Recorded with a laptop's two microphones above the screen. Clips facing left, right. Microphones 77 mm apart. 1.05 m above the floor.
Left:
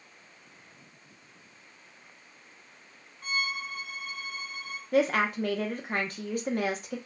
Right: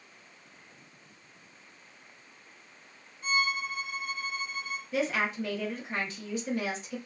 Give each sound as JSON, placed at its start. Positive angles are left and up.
{"t": 3.2, "sound": "a violin", "side_deg": 70, "distance_m": 1.5}
{"t": 4.9, "sound": "a woman speaking", "side_deg": 50, "distance_m": 0.5}